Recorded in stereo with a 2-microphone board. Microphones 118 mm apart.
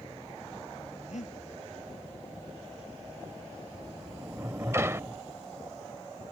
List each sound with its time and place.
1.1 s breathing: 85° left
3.7 s a sliding door: 20° right (ahead or behind)